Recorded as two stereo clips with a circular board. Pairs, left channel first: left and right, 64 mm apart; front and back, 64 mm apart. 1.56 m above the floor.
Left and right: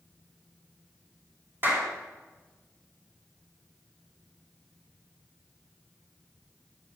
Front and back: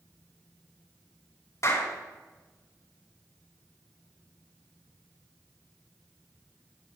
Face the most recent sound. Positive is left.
turn(degrees=-35)